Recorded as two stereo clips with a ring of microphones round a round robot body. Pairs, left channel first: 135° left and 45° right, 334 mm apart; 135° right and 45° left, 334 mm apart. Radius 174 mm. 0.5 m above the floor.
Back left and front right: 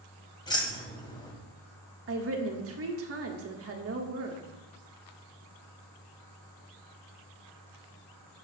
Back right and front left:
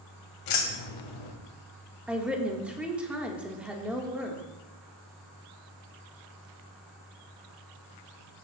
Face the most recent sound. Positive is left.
turn(degrees=-40)